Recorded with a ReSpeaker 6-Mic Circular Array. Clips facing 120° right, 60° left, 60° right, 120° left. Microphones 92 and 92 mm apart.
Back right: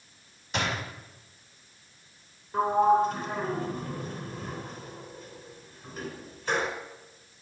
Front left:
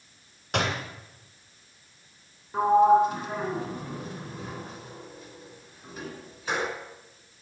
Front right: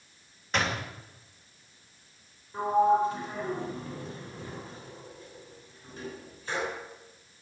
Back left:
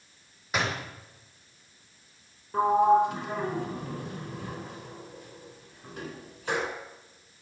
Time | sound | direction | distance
0.5 | a door slam | 40° left | 2.5 m
2.5 | a sliding door | 145° left | 3 m